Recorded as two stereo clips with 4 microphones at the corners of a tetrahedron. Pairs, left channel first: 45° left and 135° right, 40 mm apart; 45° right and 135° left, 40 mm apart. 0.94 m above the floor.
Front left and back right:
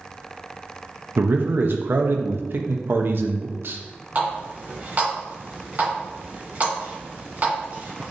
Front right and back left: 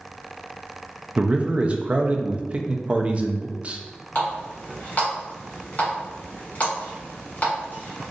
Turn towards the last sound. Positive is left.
turn(degrees=-95)